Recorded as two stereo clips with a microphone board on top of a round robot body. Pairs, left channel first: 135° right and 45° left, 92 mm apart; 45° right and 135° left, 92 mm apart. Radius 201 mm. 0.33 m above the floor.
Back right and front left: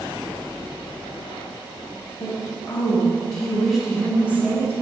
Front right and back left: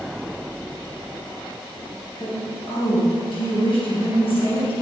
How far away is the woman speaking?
About 3.5 m.